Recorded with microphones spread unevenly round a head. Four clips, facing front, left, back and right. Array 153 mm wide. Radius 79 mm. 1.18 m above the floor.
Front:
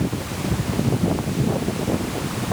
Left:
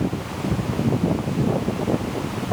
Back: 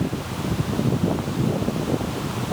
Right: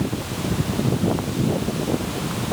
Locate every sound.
Only background noise.